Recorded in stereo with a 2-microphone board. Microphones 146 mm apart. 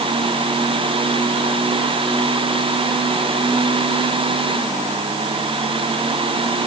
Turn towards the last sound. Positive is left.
No sound to turn to.